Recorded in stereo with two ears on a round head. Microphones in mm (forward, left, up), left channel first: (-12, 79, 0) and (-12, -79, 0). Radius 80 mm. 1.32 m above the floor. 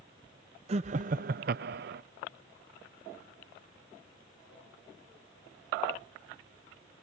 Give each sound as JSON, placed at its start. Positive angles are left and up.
{"t": 0.7, "sound": "laughter", "side_deg": -35}